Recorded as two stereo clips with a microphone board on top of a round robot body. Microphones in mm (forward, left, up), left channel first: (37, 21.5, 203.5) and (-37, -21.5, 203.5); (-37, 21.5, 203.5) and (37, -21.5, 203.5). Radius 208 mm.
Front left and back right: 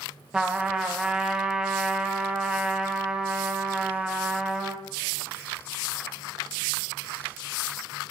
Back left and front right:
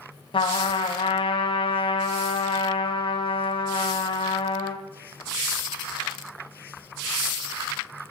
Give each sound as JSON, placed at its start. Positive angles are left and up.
{"t": 0.3, "sound": "a trumpet", "azimuth_deg": 130, "distance_m": 0.8}